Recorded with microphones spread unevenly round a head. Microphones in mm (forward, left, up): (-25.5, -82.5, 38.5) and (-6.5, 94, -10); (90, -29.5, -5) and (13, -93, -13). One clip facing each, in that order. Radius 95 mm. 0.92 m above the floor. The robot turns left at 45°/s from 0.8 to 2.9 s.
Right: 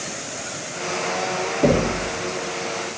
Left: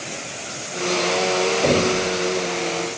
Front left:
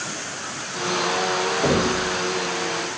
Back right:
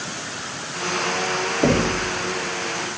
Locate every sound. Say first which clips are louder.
1.6 s knocking: right 3 dB, back right 3 dB; 90° right, 1.5 m; by 2.0 s 110° right, 1.5 m